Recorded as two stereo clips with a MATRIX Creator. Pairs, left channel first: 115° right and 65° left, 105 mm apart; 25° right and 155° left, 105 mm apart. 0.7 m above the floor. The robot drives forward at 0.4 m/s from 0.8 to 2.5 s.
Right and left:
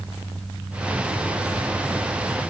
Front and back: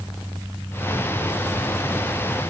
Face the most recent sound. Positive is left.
No sound to turn to.